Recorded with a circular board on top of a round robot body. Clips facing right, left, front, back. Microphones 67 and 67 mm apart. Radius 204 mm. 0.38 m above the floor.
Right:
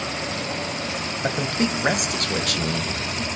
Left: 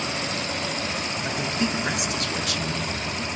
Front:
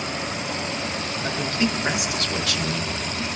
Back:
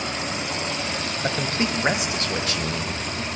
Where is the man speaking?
120° right, 3.5 m.